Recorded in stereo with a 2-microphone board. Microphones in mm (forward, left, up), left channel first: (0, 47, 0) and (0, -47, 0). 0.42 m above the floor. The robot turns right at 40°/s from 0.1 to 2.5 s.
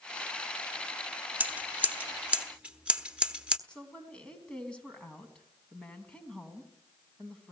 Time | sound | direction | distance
1.4 | scissors | 20° right (ahead or behind) | 1.1 m
3.7 | a woman speaking | 10° left (ahead or behind) | 4 m